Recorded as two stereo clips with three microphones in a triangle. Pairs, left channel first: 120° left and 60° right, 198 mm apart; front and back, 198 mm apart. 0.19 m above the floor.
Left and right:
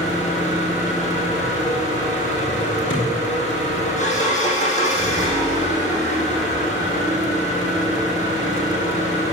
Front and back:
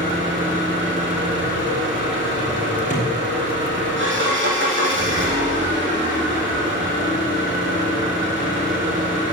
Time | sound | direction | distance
0.0 | an engine running | 170° left | 4 m
2.9 | a thud | 130° left | 5.5 m